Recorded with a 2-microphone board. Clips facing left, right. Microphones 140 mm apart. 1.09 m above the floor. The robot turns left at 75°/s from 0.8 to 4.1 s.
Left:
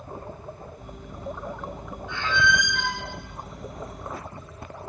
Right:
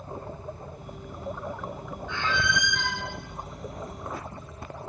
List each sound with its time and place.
2.1 s a squeak: 165° left, 2.5 m; by 3.0 s 95° left, 2.5 m